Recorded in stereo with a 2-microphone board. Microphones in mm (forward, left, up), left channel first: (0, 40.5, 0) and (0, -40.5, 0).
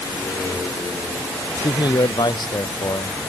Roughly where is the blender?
No blender in this recording.